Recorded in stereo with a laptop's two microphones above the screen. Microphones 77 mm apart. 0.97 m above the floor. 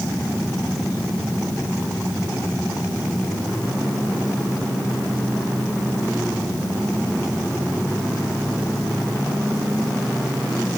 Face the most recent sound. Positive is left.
No sound to turn to.